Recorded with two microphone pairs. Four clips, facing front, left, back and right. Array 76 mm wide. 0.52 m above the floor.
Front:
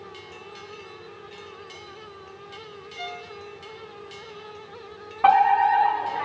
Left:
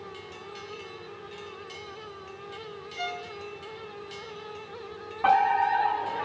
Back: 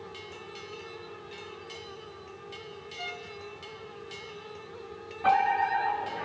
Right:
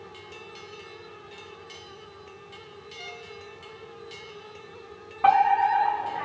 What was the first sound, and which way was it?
A violin, 65° left.